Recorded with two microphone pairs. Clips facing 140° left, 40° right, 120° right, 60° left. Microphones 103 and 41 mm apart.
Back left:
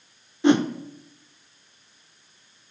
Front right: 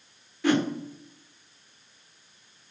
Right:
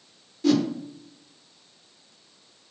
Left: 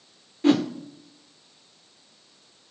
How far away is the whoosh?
About 1.0 m.